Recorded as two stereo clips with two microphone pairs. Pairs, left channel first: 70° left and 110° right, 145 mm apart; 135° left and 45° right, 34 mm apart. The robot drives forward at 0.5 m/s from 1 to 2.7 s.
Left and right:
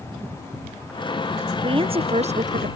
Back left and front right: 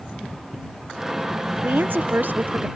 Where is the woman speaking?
55° right; by 2.7 s 80° right.